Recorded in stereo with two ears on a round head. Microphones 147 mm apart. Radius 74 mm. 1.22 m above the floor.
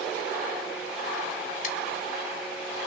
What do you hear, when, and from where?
1.6 s scissors: 50° left (ahead or behind), 1.1 m